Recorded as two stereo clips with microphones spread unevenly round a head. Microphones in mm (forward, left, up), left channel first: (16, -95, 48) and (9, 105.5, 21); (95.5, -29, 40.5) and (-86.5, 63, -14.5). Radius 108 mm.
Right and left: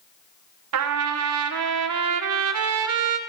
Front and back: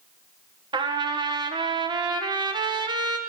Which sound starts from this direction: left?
A trumpet, at 0.7 s.